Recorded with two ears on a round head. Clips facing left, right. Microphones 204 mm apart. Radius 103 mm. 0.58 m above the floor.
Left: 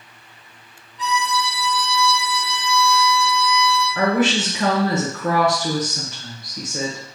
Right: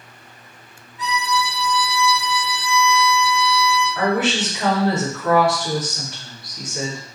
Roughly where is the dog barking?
No dog barking in this recording.